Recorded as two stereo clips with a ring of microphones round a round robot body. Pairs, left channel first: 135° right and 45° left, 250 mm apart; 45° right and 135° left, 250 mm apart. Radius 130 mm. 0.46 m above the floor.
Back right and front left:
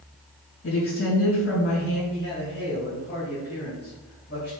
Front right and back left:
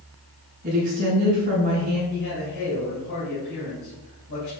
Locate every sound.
0.6 s a woman speaking: 170° right, 3.5 m
2.1 s a man speaking: 85° right, 3.5 m